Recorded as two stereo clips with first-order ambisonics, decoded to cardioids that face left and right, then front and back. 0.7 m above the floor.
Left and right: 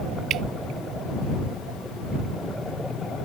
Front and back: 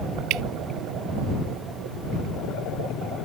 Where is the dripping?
145° right.